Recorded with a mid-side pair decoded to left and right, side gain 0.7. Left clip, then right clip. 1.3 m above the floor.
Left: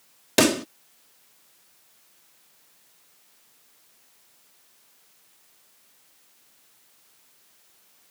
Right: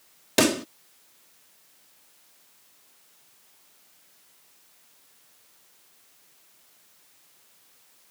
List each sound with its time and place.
0.4 s a pop: 10° left